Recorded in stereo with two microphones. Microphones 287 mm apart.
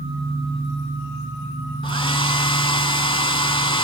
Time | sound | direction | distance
1.8 | a hair dryer | 20° left (ahead or behind) | 0.6 m